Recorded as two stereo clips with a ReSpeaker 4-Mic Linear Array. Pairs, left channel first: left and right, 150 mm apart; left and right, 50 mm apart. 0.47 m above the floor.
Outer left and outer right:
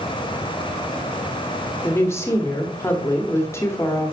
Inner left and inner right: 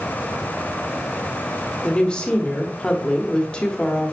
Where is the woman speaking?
20° left (ahead or behind), 1.2 m.